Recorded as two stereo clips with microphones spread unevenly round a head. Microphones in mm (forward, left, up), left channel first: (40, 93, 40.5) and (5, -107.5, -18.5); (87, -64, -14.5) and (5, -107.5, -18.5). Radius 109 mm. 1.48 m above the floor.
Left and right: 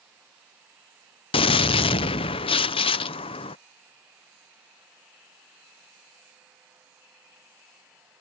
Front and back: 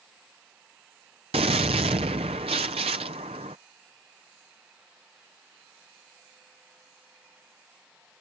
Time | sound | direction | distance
1.3 | a gunshot | 150° left | ?